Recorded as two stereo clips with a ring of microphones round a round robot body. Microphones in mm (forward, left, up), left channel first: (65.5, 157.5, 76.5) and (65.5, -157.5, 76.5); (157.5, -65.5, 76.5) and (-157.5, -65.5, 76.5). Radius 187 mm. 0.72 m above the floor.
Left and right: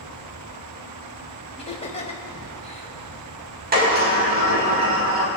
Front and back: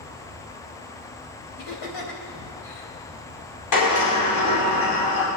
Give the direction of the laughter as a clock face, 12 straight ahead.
11 o'clock.